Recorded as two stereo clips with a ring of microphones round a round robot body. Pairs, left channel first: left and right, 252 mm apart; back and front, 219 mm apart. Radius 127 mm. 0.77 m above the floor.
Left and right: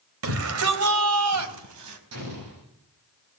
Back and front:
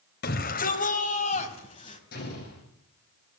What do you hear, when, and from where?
0.2 s a shout: 125° right, 3 m; by 2.0 s 110° right, 4.5 m
2.1 s an explosion: 120° right, 9.5 m